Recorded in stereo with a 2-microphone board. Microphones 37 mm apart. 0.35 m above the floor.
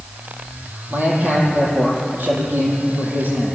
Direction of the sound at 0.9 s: 55° right (ahead or behind).